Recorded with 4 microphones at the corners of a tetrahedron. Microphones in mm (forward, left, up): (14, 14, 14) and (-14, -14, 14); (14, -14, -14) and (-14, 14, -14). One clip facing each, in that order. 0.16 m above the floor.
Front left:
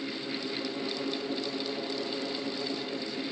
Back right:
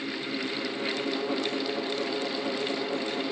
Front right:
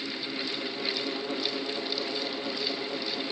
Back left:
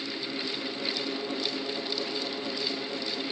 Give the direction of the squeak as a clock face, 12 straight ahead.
I don't hear a squeak.